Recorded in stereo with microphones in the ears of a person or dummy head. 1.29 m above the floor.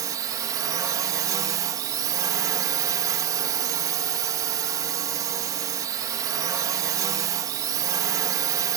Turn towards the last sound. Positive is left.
turn(degrees=-20)  # may be behind; listen again after turning